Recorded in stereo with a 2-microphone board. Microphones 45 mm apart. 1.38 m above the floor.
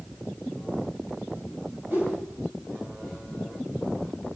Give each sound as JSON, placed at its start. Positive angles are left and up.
{"t": 1.9, "sound": "a whoosh", "side_deg": -50, "distance_m": 8.0}